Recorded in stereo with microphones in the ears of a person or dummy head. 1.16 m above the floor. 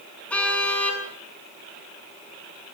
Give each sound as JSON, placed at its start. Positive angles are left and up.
{"t": 0.3, "sound": "a car horn", "side_deg": 10, "distance_m": 7.5}